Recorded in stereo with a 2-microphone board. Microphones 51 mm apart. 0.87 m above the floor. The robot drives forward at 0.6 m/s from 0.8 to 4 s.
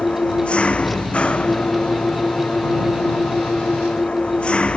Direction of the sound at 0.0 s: 20° left (ahead or behind).